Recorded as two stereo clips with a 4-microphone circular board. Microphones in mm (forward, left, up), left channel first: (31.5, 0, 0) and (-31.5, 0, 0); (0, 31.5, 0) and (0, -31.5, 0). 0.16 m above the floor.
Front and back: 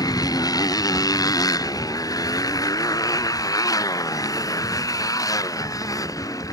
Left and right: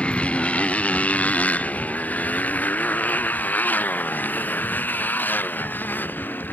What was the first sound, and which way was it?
A motorcycle, 15° left.